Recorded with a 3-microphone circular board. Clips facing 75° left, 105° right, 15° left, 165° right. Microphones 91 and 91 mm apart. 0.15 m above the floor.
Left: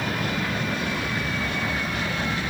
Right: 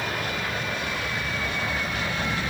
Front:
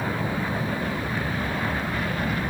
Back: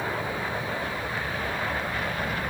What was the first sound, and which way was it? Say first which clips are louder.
An aircraft: left 2 dB, front 2 dB; 50° left.